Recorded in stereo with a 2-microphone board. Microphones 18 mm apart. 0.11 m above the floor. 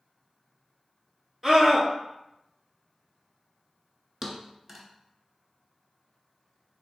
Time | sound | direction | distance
1.4 | a scream | 20° right (ahead or behind) | 1.1 m
4.2 | a thud | 20° right (ahead or behind) | 0.5 m